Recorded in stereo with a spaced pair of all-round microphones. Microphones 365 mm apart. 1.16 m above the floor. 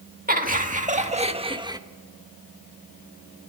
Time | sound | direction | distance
0.3 | laughter | 25° right (ahead or behind) | 2 m